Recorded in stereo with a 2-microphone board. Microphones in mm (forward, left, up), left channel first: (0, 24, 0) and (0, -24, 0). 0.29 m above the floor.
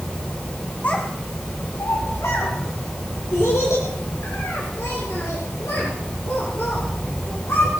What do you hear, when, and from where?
0.8 s a child speaking: 35° left (ahead or behind), 1.5 m; by 7.8 s 80° left, 7.5 m